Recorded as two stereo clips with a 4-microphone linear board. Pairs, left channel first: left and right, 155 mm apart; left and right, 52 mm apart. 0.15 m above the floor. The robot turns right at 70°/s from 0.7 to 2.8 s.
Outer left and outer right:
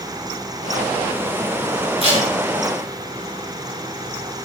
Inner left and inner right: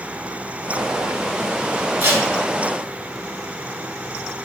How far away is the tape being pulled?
About 0.7 m.